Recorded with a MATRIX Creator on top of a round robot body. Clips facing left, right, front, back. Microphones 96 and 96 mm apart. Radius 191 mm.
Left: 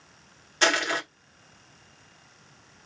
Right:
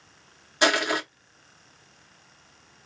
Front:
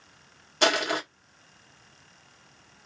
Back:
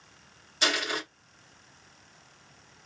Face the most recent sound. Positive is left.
turn(degrees=-15)